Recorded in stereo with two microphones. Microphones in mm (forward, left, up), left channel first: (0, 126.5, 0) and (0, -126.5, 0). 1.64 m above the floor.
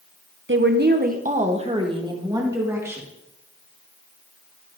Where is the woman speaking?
50° right (ahead or behind), 0.7 m; by 3.0 s 10° right (ahead or behind), 1.7 m.